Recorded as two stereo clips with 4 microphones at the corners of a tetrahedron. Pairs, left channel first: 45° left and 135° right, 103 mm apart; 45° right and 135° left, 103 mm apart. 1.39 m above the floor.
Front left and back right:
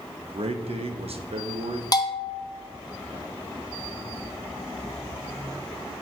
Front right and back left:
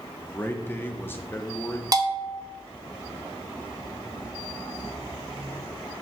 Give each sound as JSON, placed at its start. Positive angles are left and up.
{"t": 0.2, "sound": "a man speaking", "azimuth_deg": -115, "distance_m": 0.8}
{"t": 1.9, "sound": "a bell", "azimuth_deg": 85, "distance_m": 0.7}